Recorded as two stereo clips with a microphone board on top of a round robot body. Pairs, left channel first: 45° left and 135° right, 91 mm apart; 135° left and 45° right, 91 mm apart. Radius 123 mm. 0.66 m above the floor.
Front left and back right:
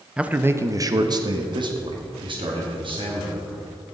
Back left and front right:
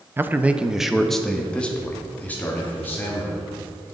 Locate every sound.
0.2 s a man speaking: 70° right, 0.8 m; by 3.6 s 155° right, 2.5 m